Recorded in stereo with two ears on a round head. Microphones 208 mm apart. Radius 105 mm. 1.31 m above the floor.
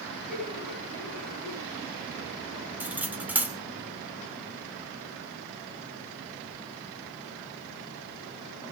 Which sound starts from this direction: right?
Laughter, at 0.3 s.